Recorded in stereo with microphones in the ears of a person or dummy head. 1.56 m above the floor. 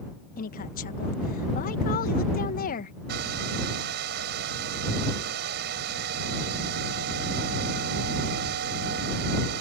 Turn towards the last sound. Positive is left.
turn(degrees=-60)  # may be behind; listen again after turning